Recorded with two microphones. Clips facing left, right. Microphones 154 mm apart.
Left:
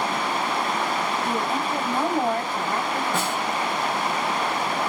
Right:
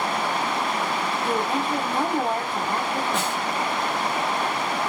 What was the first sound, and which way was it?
A woman speaking, 30° right (ahead or behind).